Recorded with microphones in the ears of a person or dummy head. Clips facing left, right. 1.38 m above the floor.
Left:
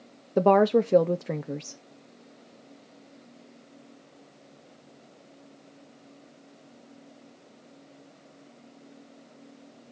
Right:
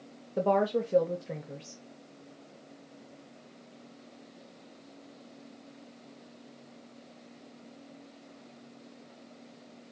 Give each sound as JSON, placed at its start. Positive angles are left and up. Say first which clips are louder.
{"t": 0.4, "sound": "a woman speaking", "louder": "left 7 dB", "side_deg": 70, "distance_m": 0.5}